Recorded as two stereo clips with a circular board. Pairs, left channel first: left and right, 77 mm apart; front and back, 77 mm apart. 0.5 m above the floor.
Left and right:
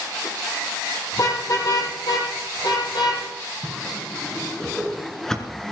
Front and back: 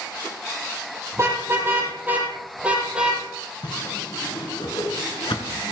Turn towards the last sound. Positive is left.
turn(degrees=5)